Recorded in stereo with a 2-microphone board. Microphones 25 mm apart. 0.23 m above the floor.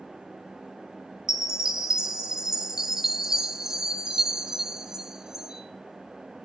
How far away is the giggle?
I don't hear a giggle.